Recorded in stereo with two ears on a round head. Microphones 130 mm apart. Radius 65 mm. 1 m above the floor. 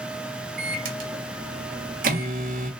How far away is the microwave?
About 1.1 m.